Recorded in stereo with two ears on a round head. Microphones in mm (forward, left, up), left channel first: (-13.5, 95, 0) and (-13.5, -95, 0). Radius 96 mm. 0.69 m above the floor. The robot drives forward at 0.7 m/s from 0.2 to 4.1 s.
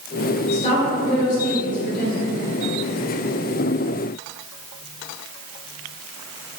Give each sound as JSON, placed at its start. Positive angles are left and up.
{"t": 0.5, "sound": "a woman speaking", "side_deg": 30, "distance_m": 3.0}